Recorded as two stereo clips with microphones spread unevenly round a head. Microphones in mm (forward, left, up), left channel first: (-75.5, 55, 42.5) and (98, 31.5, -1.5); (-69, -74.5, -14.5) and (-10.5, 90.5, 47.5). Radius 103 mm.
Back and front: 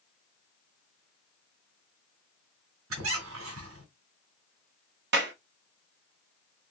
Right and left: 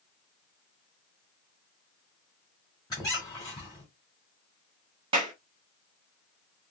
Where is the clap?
Straight ahead, 1.0 m.